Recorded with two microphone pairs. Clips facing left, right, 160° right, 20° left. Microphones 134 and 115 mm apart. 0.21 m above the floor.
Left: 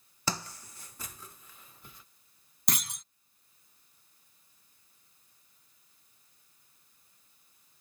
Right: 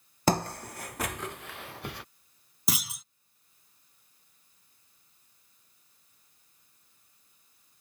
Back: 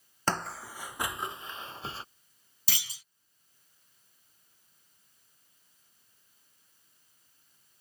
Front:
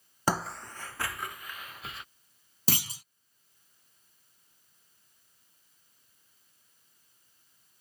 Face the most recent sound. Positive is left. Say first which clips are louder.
# right 2 dB, front 10 dB
turn(degrees=-10)